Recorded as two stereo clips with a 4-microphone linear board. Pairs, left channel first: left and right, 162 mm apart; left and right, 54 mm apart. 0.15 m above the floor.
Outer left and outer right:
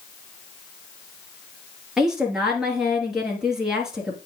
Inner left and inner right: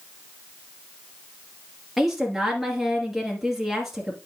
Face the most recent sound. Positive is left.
turn(degrees=-5)  # may be behind; listen again after turning